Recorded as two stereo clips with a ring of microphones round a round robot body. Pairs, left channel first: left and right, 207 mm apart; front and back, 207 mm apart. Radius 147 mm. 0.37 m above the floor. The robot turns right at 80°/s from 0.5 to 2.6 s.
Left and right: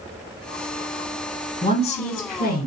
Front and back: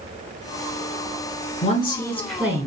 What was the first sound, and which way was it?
A woman speaking, 35° left.